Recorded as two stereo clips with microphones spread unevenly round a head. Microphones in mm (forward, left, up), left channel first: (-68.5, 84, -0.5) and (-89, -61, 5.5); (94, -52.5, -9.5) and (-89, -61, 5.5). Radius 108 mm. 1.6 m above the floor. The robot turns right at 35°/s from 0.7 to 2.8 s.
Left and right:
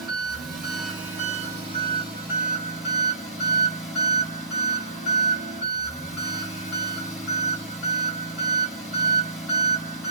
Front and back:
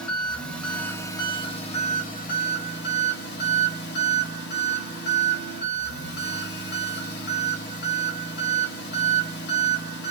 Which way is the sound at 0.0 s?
85° right.